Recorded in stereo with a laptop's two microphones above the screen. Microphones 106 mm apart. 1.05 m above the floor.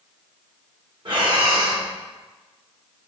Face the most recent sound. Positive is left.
turn(degrees=-50)  # may be behind; listen again after turning